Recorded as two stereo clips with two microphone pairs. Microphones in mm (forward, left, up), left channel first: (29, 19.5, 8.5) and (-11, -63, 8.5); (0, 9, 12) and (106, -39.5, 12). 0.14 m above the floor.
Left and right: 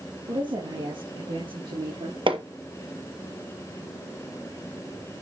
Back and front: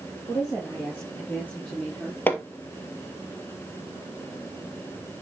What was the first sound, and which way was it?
A woman speaking, 140° right.